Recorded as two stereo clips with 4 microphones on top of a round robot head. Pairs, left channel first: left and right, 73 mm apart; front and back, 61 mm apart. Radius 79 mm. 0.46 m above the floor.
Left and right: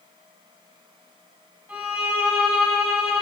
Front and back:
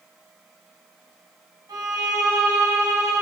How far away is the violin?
About 2.5 m.